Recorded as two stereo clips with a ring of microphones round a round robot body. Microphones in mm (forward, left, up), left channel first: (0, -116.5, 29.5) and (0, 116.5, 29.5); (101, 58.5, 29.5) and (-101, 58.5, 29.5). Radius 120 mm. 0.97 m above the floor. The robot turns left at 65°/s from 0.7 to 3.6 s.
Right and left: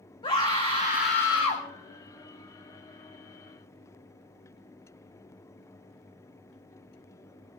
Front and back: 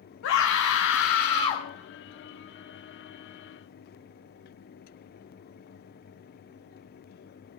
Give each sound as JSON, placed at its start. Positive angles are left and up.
{"t": 0.2, "sound": "a scream", "azimuth_deg": -20, "distance_m": 1.7}